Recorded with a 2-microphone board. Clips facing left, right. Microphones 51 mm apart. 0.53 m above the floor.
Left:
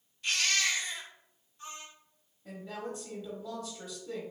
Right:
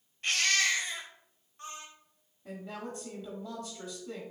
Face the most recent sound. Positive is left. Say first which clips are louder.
# left 1 dB
turn(degrees=-10)  # may be behind; listen again after turning